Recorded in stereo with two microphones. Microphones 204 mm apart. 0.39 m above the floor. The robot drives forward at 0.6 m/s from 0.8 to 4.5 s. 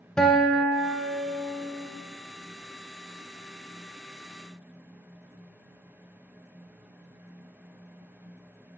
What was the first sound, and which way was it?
A guitar, 5° left (ahead or behind).